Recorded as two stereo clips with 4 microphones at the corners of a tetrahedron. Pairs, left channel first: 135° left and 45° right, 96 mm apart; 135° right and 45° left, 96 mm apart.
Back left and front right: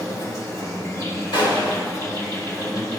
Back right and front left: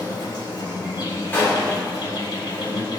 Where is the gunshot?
160° left, 3 m.